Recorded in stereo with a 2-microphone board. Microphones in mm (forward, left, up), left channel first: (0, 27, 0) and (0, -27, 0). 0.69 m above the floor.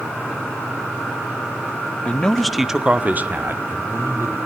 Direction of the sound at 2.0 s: 25° left (ahead or behind).